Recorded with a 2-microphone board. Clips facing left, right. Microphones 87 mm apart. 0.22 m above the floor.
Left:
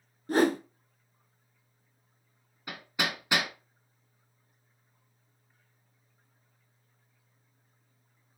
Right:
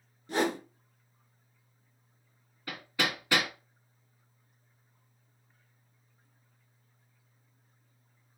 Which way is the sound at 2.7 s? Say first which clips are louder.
Right 1 dB; 20° left (ahead or behind).